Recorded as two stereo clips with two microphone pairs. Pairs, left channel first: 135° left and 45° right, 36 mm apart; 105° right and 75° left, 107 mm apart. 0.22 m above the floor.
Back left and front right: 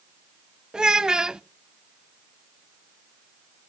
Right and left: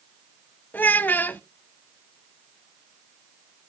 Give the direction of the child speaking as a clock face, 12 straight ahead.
2 o'clock.